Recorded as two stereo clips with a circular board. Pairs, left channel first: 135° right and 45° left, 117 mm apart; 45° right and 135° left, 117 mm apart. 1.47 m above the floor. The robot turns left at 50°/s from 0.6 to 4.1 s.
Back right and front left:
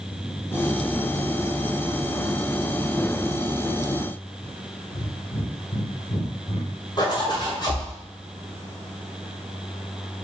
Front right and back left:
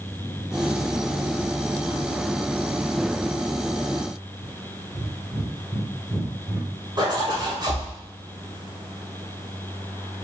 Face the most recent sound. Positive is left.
turn(degrees=180)